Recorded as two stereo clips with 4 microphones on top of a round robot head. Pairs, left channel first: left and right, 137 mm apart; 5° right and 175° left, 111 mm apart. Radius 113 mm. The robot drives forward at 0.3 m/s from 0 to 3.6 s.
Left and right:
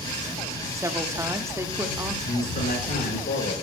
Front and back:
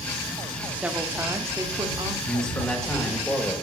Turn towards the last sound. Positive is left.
turn(degrees=75)